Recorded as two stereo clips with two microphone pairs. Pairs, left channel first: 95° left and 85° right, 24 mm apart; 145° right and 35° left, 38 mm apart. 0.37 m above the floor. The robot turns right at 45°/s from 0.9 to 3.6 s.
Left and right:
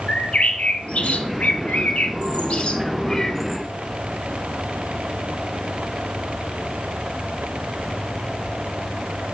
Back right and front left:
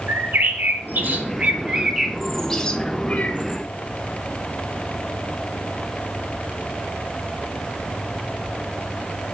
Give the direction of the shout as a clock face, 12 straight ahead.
No shout in this recording.